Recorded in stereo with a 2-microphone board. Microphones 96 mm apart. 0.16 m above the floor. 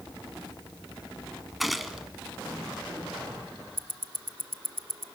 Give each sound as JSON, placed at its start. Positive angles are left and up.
{"t": 1.6, "sound": "a gunshot", "side_deg": 0, "distance_m": 1.3}
{"t": 3.8, "sound": "ticking", "side_deg": -70, "distance_m": 0.6}